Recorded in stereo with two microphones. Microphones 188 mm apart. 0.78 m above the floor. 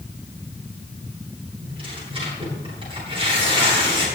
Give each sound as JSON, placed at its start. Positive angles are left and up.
{"t": 1.6, "sound": "tearing paper", "side_deg": -30, "distance_m": 9.5}